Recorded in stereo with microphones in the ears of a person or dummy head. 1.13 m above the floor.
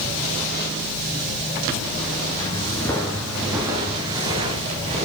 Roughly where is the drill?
I don't hear a drill.